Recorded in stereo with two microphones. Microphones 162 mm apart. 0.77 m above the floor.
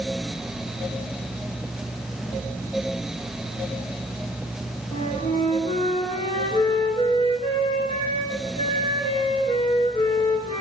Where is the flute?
35° left (ahead or behind), 6.5 m.